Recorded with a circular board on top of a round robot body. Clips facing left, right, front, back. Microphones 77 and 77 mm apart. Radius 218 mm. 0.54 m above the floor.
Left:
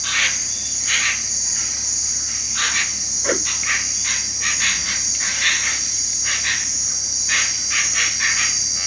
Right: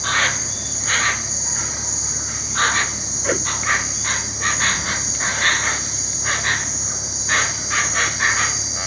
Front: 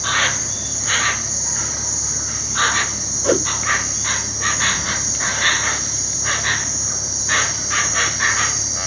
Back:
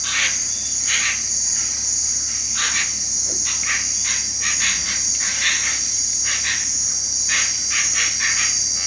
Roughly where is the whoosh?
Ahead.